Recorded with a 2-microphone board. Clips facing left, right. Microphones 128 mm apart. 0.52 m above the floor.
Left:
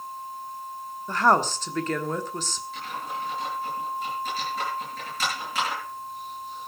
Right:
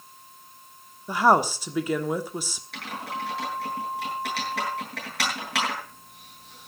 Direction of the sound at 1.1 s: 10° right (ahead or behind).